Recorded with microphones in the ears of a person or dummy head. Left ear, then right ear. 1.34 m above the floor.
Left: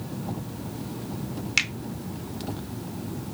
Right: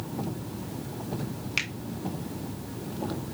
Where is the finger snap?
5° left (ahead or behind), 0.7 m.